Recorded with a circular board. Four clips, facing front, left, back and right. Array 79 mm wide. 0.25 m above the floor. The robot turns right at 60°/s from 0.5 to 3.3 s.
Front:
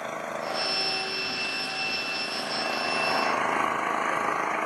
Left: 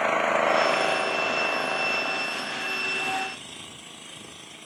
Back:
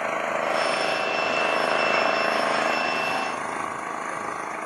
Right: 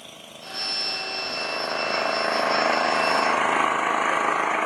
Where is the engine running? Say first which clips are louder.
Left 21 dB, back 7 dB; 115° left; by 4.7 s 80° right.